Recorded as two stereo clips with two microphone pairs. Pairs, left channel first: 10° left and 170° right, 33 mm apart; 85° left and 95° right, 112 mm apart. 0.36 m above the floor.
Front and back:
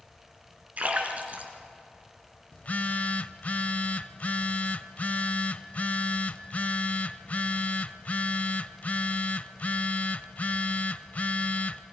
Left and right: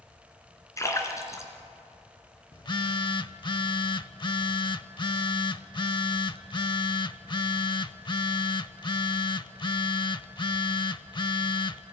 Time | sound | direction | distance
0.8 | a splash | 150° left | 3 m
2.5 | a phone buzzing | 40° left | 0.6 m